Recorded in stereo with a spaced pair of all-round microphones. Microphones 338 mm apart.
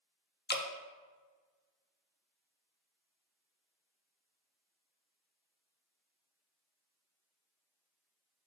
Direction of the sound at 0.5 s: 30° left (ahead or behind).